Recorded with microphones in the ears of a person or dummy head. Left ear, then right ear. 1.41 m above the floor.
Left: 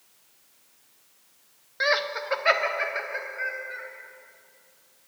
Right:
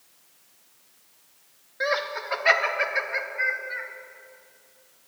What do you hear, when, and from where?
1.8 s laughter: 35° left (ahead or behind), 1.0 m; by 3.9 s 20° right (ahead or behind), 2.5 m